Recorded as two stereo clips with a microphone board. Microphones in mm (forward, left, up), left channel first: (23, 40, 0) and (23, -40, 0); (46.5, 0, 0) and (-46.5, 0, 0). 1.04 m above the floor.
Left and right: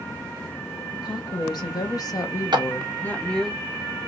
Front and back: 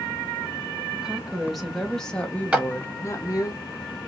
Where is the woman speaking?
95° left, 1.3 m; by 3.5 s 5° left, 0.7 m.